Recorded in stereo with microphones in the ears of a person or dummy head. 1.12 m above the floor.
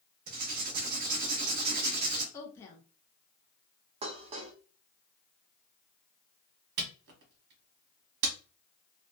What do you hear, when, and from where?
0.3 s writing: 45° right (ahead or behind), 0.7 m
2.3 s a woman speaking: 10° left (ahead or behind), 0.5 m
4.0 s dishes clattering: 35° right (ahead or behind), 0.6 m
6.8 s a camera shutter: 55° right (ahead or behind), 1.1 m